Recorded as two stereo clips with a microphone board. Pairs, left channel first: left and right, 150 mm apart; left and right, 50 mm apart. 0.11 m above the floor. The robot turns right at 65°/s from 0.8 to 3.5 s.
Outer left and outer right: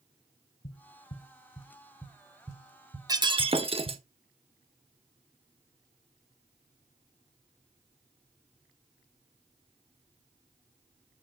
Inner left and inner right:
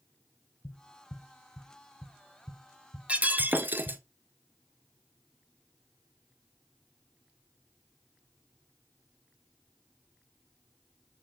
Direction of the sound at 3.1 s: 25° right (ahead or behind).